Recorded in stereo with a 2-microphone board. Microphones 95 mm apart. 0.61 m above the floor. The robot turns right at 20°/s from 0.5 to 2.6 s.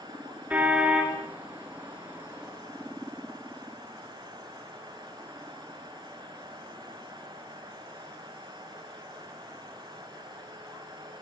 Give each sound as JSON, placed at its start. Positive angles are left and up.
{"t": 0.5, "sound": "a car horn", "side_deg": -15, "distance_m": 4.0}